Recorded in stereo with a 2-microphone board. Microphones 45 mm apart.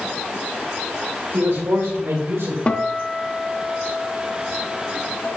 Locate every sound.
1.3 s a man speaking: 85° right, 3 m; by 2.6 s 80° right, 4 m
2.7 s a guitar: 30° left (ahead or behind), 0.9 m